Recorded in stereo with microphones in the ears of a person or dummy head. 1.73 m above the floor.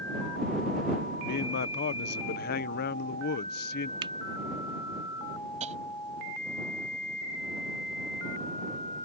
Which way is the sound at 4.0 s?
25° right (ahead or behind).